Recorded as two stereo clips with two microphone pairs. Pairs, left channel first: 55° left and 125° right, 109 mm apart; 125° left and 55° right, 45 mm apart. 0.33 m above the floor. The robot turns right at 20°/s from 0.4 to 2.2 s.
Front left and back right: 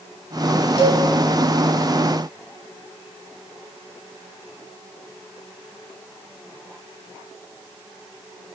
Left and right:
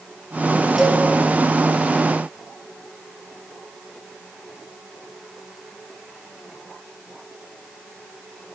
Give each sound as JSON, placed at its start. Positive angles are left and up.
{"t": 0.8, "sound": "a cowbell", "azimuth_deg": 20, "distance_m": 0.6}